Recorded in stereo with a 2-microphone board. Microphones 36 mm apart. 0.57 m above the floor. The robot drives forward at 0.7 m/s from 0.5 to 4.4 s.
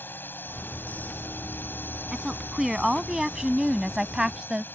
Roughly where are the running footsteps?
I don't hear running footsteps.